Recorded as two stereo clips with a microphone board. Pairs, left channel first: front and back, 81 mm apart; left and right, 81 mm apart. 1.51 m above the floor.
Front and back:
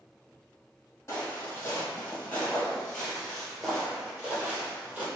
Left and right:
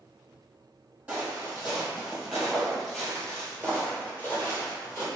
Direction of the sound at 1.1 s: 35° right.